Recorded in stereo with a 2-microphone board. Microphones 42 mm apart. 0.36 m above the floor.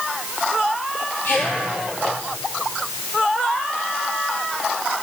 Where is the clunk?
I don't hear a clunk.